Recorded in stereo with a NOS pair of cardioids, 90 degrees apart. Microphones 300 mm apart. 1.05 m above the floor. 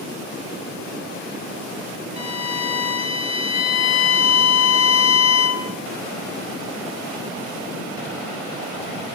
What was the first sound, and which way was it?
A violin, 55° left.